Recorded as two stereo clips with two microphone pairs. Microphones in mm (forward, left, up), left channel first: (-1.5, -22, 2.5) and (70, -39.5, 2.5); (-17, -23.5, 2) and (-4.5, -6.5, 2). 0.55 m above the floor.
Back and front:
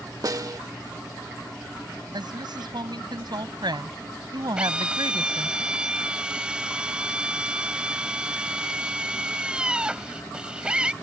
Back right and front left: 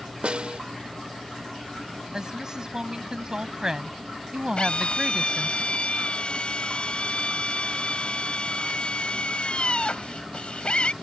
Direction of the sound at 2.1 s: 5° right.